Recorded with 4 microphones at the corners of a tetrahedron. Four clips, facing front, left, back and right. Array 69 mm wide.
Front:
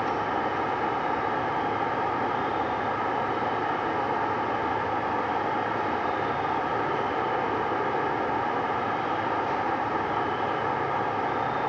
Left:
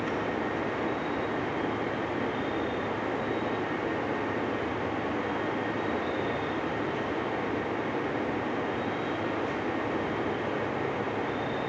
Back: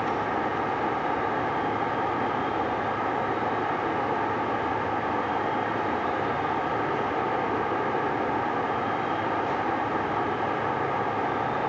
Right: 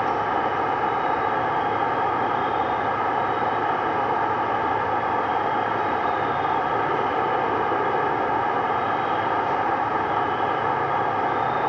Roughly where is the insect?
Right.